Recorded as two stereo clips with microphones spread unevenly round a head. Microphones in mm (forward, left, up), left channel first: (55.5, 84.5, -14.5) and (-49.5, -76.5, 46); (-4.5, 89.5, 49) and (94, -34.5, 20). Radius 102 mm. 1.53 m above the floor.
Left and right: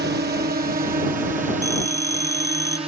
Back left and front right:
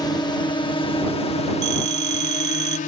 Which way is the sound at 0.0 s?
160° right.